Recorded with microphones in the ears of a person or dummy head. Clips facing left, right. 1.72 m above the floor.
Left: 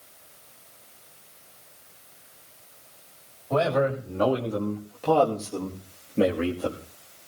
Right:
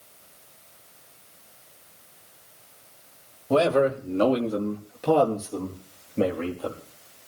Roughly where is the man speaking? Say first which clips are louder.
Right 3 dB; right.